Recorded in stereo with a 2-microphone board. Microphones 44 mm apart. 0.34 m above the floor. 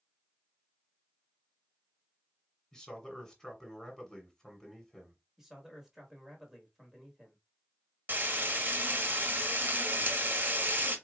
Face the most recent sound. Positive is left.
turn(degrees=-50)  # may be behind; listen again after turning